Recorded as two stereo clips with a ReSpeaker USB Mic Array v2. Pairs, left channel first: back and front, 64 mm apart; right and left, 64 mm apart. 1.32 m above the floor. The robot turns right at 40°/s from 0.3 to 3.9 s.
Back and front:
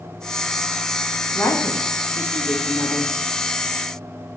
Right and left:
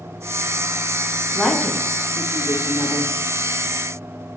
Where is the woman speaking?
175° left, 1.9 m; by 3.1 s 115° right, 1.9 m.